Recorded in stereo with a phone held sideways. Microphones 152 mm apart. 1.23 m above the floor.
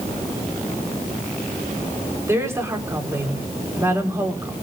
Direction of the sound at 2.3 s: 20° right (ahead or behind).